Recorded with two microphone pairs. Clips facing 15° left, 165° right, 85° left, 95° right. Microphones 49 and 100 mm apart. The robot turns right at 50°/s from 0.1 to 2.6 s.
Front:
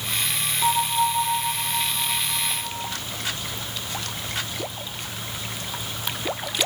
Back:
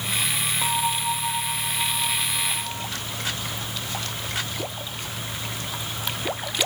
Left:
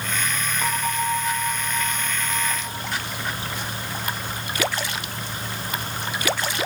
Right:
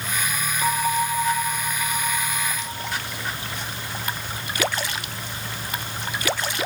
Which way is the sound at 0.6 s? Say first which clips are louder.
Front 5 dB, right 3 dB; 165° left.